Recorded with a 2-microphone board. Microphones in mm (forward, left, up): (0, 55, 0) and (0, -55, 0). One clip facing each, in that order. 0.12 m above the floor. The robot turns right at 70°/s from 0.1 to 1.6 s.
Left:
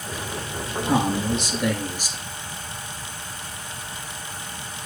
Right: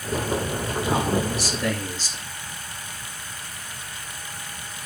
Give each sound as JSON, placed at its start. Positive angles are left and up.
{"t": 0.8, "sound": "a man speaking", "azimuth_deg": 110, "distance_m": 2.0}